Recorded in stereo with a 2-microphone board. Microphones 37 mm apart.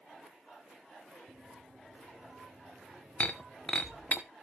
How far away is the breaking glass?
About 1.0 m.